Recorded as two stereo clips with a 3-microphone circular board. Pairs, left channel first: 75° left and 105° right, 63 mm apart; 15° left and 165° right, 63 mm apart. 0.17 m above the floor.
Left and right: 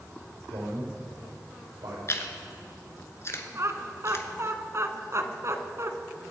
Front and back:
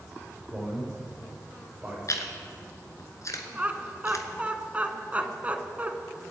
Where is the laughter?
105° right, 1.4 m.